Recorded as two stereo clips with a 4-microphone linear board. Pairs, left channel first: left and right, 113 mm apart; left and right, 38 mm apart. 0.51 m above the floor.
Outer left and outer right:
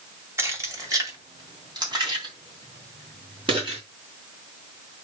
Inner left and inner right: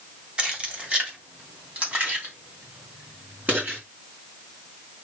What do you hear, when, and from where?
0.4 s keys jangling: 25° right (ahead or behind), 1.8 m; by 3.8 s 50° right (ahead or behind), 4 m